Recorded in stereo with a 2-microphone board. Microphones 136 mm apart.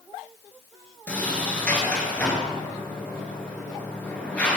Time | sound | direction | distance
1.1 | a sliding door | 10° left (ahead or behind) | 1.5 m